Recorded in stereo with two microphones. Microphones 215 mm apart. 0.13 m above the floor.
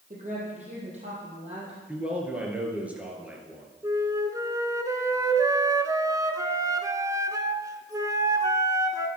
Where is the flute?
15° right (ahead or behind), 0.9 m.